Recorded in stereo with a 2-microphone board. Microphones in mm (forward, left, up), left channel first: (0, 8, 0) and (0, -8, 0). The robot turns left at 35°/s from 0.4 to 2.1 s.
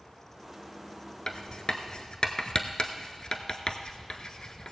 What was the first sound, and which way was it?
Writing, 50° left (ahead or behind).